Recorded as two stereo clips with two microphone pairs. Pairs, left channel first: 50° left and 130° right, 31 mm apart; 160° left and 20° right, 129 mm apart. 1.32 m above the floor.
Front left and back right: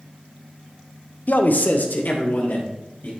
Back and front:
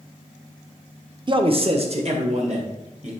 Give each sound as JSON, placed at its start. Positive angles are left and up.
{"t": 1.3, "sound": "a man speaking", "azimuth_deg": 30, "distance_m": 0.7}